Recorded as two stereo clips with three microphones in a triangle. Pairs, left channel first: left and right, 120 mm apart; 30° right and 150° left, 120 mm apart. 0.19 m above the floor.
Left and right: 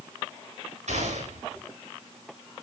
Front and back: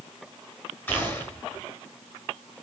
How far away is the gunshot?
About 9 m.